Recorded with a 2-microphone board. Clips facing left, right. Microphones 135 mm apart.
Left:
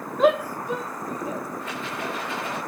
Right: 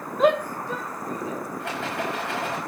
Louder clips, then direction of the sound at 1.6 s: Right 2 dB; 75° right (ahead or behind).